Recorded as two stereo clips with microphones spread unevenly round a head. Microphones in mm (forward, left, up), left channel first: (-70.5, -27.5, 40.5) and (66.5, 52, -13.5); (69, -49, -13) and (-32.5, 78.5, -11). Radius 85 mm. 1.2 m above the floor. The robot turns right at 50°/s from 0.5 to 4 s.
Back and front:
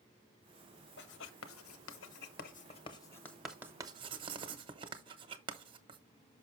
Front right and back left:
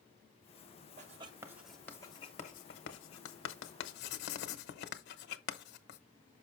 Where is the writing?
Straight behind, 0.9 m; by 6.0 s 30° right, 0.9 m.